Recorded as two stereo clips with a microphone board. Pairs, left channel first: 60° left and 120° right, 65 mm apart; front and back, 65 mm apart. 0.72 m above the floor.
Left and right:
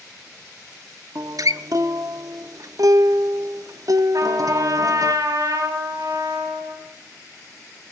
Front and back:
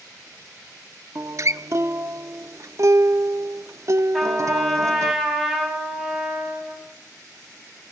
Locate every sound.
1.1 s a guitar: 140° right, 0.8 m
4.1 s a trumpet: 90° right, 4.5 m